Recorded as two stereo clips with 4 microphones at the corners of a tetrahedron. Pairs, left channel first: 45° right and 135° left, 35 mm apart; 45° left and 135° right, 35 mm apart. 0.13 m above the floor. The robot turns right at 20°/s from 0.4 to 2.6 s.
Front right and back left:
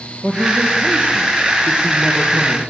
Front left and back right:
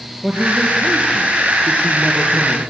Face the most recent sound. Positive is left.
turn(degrees=-145)